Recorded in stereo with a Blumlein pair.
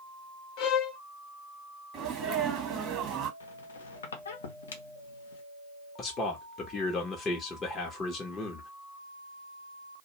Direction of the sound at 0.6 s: 40° left.